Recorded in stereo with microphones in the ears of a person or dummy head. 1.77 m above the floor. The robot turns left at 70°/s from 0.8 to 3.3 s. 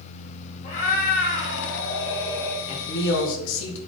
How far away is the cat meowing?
About 1.7 m.